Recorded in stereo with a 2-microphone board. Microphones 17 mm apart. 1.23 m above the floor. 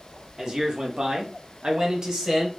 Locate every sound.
0.4 s a man speaking: 40° right (ahead or behind), 1.1 m; by 2.5 s 35° right (ahead or behind), 1.1 m